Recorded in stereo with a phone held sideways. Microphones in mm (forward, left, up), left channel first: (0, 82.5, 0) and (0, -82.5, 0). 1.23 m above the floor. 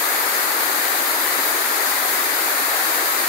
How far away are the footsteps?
No footsteps in this recording.